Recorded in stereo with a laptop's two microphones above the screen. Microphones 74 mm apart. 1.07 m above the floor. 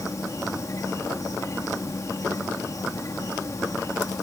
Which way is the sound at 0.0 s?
50° left (ahead or behind).